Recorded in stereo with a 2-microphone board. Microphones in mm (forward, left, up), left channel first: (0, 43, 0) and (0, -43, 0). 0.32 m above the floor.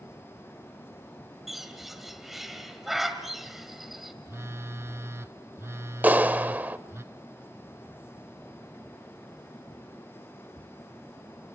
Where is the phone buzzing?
35° right (ahead or behind), 0.6 m.